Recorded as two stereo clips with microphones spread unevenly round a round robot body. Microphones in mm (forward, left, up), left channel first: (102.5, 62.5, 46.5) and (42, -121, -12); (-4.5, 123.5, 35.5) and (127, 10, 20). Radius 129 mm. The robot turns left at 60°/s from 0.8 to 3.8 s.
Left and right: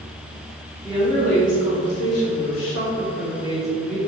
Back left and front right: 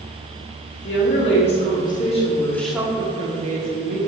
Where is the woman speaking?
160° left, 2 m; by 4.0 s 20° right, 2 m.